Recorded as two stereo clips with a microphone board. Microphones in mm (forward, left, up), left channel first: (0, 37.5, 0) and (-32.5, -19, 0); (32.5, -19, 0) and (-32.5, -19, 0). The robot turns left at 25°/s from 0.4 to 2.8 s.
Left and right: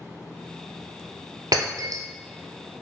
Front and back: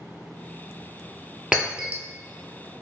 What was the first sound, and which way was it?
Breaking glass, 100° right.